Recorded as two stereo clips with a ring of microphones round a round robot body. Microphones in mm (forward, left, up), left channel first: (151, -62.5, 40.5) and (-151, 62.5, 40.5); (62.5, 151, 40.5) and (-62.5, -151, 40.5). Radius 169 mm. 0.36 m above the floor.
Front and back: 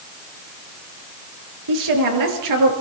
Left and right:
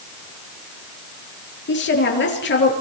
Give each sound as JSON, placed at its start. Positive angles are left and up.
{"t": 1.7, "sound": "a woman speaking", "azimuth_deg": 125, "distance_m": 6.0}